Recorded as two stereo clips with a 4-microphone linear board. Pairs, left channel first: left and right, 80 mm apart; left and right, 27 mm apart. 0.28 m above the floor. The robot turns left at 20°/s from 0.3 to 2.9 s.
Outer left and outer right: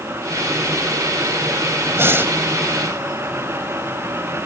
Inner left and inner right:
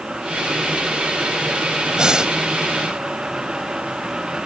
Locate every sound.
1.9 s breathing: 35° right (ahead or behind), 1.1 m; by 2.3 s 30° right (ahead or behind), 1.1 m